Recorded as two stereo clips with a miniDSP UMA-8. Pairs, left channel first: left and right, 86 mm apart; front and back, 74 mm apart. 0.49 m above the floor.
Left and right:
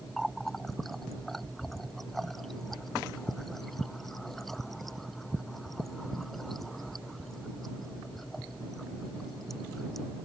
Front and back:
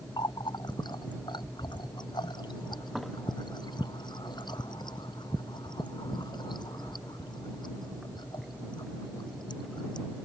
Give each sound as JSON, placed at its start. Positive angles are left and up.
{"t": 0.2, "sound": "a running tap", "azimuth_deg": 5}